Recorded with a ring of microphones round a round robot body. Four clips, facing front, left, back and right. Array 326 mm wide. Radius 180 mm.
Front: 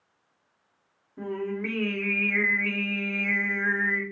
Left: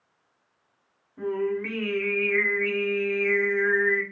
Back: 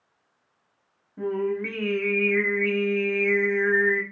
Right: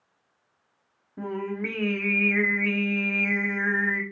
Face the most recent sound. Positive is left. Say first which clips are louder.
# left 4 dB, back 5 dB
turn(degrees=-90)